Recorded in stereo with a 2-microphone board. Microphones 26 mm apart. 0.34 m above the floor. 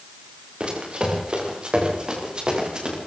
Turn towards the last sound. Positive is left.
turn(degrees=-40)  # may be behind; listen again after turning